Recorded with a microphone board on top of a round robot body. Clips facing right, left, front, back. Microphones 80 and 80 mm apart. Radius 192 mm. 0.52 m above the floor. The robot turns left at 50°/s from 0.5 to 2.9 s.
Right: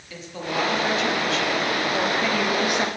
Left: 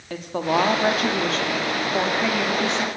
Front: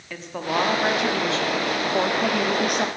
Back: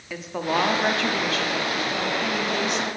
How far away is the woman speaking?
About 1.5 m.